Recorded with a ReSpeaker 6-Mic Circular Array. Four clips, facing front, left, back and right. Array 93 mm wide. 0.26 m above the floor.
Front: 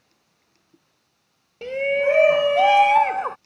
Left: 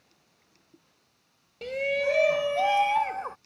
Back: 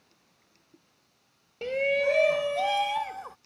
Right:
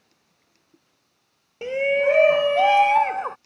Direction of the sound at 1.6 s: 85° right.